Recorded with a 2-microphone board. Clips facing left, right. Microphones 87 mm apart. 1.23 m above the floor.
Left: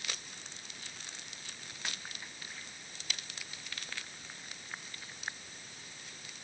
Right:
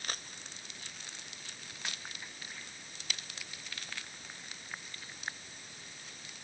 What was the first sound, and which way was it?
Only background noise.